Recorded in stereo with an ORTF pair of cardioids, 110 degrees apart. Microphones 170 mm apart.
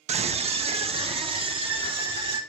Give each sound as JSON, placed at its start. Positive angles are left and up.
{"t": 0.1, "sound": "a scream", "azimuth_deg": -40, "distance_m": 1.2}